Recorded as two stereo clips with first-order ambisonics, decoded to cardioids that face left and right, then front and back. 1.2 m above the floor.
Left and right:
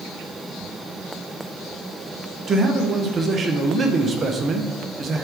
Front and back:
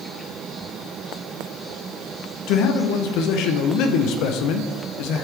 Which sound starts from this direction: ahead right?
A man speaking, at 2.5 s.